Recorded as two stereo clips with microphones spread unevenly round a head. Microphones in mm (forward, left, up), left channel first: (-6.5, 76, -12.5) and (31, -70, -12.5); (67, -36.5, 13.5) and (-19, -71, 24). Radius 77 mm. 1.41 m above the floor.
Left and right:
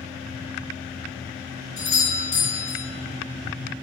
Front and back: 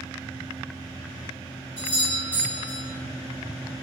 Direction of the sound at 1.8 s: 70° left.